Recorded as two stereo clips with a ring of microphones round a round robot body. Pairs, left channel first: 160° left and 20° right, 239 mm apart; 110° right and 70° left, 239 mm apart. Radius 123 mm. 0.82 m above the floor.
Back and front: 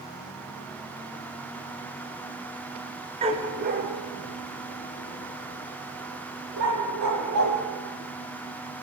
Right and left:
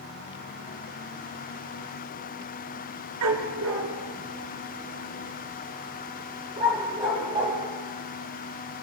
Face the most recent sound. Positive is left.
turn(degrees=-5)